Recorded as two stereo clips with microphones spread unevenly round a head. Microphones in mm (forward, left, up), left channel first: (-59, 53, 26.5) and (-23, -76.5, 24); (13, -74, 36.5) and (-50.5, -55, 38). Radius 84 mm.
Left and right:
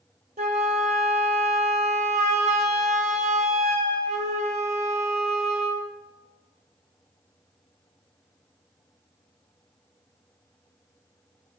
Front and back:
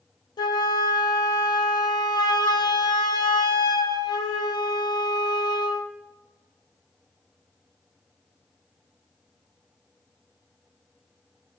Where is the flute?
25° right, 0.8 m.